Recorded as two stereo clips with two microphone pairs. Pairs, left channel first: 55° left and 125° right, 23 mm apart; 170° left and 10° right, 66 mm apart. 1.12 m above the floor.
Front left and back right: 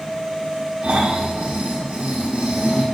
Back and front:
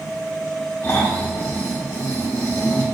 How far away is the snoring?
About 1.2 m.